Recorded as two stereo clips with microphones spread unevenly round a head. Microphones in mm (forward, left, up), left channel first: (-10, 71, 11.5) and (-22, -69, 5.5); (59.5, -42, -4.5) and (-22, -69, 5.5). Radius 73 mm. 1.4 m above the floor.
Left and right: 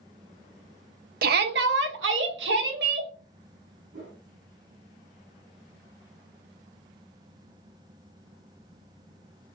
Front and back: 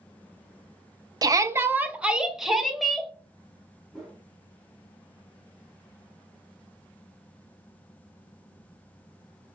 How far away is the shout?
About 0.8 m.